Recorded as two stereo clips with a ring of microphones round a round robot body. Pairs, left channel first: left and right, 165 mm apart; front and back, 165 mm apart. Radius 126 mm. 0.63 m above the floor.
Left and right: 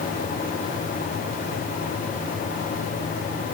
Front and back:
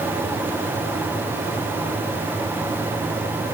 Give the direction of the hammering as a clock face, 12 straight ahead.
No hammering in this recording.